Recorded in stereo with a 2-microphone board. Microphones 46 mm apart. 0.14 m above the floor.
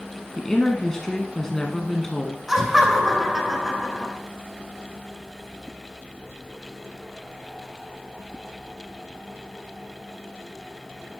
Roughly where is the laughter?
Centre.